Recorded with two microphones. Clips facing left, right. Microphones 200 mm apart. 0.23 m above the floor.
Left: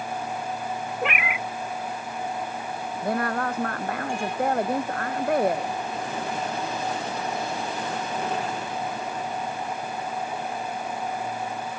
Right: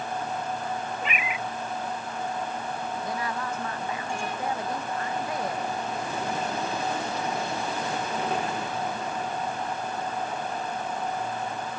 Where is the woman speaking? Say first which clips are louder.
Left 10 dB; 60° left (ahead or behind).